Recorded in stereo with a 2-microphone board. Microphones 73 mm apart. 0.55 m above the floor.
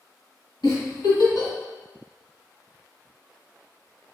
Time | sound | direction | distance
0.6 | a giggle | 75° left (ahead or behind) | 1.6 m